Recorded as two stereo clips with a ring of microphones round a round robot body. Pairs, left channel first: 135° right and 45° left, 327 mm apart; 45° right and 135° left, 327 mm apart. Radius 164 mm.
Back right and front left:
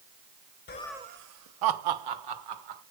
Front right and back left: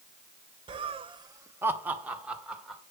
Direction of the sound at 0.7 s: 160° right.